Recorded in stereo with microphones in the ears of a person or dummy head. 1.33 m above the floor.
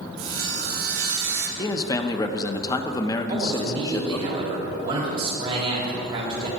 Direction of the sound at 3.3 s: 30° right (ahead or behind).